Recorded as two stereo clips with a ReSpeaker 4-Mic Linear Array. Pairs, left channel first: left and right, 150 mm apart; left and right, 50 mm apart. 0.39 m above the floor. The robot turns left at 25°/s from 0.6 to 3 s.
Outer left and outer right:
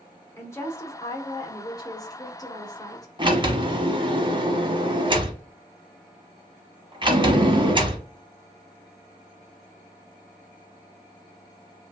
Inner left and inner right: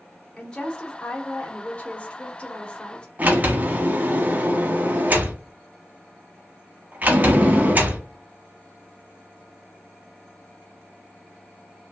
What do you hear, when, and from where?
0.4 s a woman speaking: 20° left (ahead or behind), 0.8 m; by 3.1 s 25° left (ahead or behind), 0.8 m
3.2 s a sliding door: 35° right (ahead or behind), 0.9 m